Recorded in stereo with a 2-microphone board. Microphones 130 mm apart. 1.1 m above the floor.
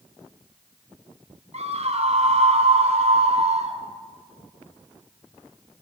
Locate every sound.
1.5 s a scream: 55° right (ahead or behind), 3 m